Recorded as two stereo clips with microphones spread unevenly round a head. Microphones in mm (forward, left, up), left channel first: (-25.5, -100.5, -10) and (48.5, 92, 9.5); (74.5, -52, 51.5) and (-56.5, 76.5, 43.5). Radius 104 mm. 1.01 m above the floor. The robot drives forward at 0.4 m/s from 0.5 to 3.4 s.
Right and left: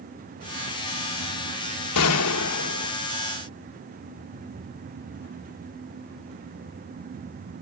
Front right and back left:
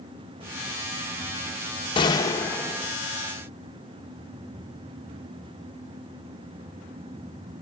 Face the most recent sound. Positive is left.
turn(degrees=-140)